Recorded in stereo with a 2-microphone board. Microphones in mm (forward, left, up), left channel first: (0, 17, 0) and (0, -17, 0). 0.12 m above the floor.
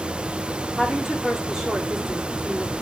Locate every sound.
0.8 s a woman speaking: 15° right (ahead or behind), 8.5 m